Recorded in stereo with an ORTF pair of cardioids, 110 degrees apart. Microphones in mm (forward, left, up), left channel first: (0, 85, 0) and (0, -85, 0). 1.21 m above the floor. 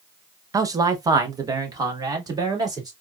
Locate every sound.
0.5 s a man speaking: 20° right, 0.7 m